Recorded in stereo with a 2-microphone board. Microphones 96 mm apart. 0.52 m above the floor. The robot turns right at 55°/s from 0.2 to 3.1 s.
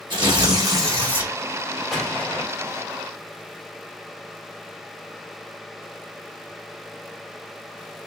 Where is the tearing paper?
80° right, 1.2 m; by 1.3 s 20° right, 1.2 m.